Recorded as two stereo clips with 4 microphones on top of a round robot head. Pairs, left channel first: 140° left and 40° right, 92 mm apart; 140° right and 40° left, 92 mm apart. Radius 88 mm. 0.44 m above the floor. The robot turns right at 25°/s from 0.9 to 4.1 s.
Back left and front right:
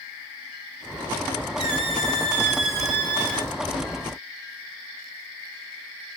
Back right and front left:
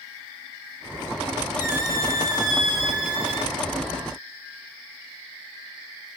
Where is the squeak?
30° right, 0.8 m; by 3.5 s 20° left, 0.8 m.